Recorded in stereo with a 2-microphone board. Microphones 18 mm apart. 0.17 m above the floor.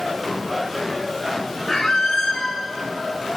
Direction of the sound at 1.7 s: 35° left (ahead or behind).